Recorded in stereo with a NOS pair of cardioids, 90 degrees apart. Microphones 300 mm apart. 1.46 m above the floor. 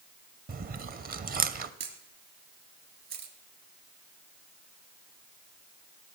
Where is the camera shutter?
55° right, 3.5 m.